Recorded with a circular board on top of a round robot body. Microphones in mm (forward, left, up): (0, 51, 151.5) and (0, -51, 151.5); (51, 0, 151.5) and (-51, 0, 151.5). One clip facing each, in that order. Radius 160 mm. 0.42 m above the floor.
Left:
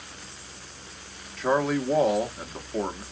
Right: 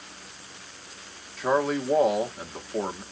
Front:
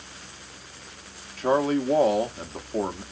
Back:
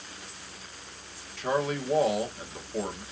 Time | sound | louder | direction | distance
1.4 | a man speaking | even, front 6 dB | 5° right | 1.4 m